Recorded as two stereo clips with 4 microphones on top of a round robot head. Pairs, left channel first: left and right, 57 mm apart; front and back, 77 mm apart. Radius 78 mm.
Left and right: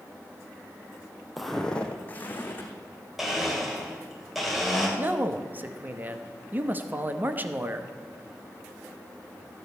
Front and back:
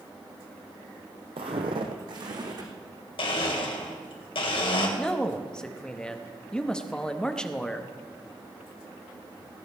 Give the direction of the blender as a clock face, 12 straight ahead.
12 o'clock.